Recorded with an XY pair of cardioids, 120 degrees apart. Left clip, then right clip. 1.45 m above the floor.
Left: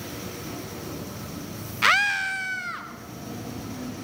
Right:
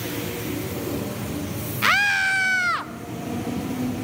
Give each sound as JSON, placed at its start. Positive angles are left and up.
{"t": 1.8, "sound": "a scream", "azimuth_deg": 10, "distance_m": 0.5}